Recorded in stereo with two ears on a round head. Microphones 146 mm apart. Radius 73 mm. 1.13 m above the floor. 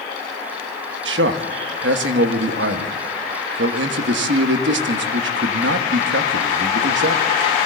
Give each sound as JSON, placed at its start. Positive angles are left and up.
{"t": 1.1, "sound": "a man speaking", "side_deg": -75, "distance_m": 1.3}